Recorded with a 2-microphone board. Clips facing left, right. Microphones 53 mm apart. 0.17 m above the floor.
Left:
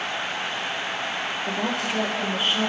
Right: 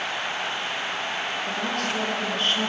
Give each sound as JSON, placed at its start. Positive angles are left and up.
{"t": 1.5, "sound": "a woman speaking", "side_deg": 20, "distance_m": 3.0}